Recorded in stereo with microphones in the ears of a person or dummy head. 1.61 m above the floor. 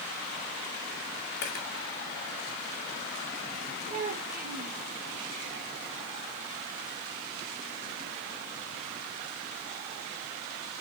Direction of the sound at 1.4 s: 55° left (ahead or behind).